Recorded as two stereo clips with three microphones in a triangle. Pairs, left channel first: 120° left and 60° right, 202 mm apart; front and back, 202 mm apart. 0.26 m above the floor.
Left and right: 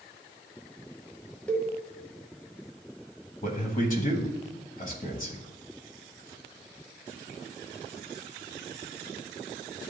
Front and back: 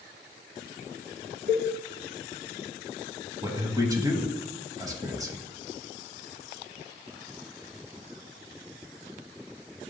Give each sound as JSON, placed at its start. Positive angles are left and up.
{"t": 1.5, "sound": "a cowbell", "azimuth_deg": -160, "distance_m": 1.0}
{"t": 3.4, "sound": "a man speaking", "azimuth_deg": 115, "distance_m": 1.2}